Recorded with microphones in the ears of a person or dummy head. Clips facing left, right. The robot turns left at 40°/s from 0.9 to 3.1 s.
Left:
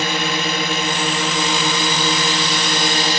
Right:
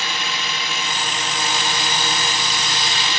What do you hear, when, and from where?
0.0 s a drone: 130° left; by 3.2 s 45° left